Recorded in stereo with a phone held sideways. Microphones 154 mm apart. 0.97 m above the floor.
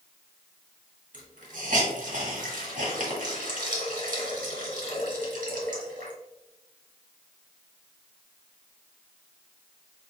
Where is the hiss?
60° right (ahead or behind), 1.5 m.